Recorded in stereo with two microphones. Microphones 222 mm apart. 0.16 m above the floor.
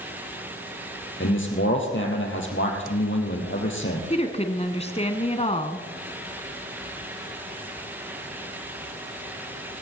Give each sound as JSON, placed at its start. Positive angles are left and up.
{"t": 1.2, "sound": "a man speaking", "side_deg": 60, "distance_m": 4.0}
{"t": 4.1, "sound": "a woman speaking", "side_deg": 30, "distance_m": 1.4}